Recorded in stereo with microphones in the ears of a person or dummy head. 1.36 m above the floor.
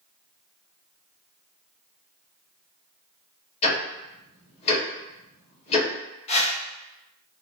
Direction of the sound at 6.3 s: 40° left (ahead or behind).